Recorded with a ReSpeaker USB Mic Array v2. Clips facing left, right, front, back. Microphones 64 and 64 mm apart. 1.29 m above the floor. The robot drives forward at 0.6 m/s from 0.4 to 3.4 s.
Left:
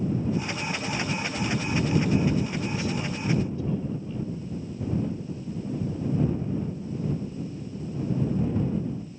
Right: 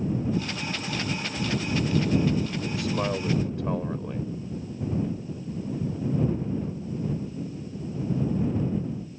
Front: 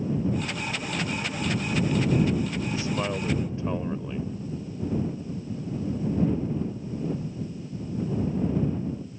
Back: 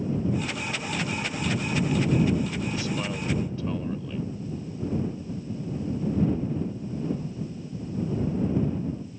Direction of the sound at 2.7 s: 60° right.